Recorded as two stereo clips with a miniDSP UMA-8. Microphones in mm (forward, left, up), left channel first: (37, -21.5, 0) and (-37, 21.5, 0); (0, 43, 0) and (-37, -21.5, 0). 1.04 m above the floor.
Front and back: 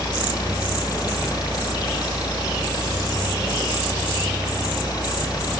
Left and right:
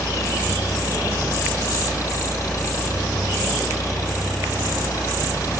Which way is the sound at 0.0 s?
10° left.